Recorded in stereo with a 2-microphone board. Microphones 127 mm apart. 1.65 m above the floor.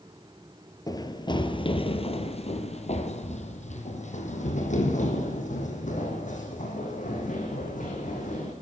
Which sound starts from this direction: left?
Running footsteps, at 0.9 s.